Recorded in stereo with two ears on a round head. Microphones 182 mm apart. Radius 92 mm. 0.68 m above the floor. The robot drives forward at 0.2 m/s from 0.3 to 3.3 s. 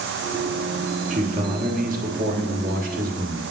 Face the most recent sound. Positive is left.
turn(degrees=-45)  # may be behind; listen again after turning